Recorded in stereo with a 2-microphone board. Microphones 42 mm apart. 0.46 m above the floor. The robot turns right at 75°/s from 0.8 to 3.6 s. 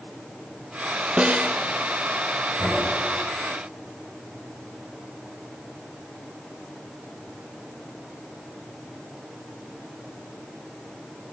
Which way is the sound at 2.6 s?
30° left (ahead or behind).